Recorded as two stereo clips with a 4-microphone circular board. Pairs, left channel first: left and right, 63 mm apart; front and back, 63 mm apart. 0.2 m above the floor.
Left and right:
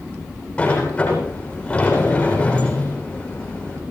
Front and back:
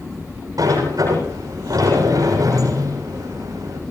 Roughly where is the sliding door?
Behind left.